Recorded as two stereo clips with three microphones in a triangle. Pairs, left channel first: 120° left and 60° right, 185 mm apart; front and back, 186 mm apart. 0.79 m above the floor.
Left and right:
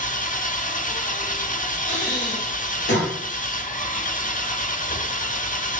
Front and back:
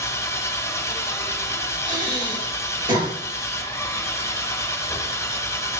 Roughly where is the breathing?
Behind left.